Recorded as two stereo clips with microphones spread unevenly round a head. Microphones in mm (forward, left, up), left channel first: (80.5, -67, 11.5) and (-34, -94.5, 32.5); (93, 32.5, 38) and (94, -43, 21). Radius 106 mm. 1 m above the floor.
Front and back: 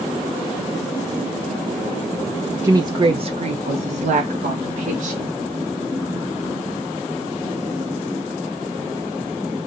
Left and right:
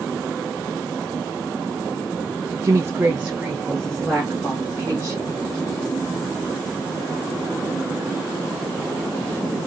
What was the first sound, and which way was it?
A woman speaking, 100° right.